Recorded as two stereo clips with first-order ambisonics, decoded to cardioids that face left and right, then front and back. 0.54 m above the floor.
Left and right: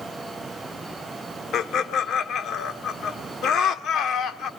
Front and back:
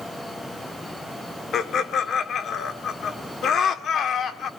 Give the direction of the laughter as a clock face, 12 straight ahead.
10 o'clock.